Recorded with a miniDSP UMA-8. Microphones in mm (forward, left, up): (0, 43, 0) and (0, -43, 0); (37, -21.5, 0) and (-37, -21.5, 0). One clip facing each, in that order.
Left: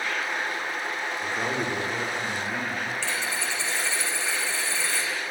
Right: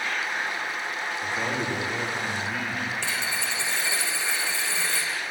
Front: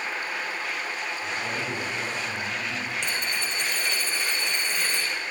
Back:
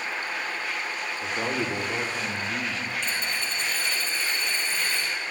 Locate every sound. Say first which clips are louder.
1.2 s a man speaking: even, back 5 dB; 160° left, 2.5 m
3.0 s a dropped coin: even, even; 15° right, 4 m